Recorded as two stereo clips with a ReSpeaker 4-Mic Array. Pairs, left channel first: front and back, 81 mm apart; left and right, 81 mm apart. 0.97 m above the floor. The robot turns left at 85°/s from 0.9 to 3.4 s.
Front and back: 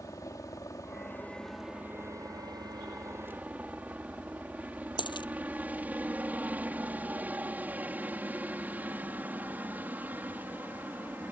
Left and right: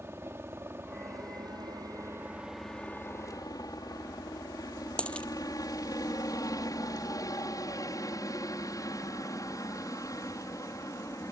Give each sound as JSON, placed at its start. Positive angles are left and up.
{"t": 0.0, "sound": "a helicopter", "azimuth_deg": -35}
{"t": 5.0, "sound": "a dropped coin", "azimuth_deg": 15}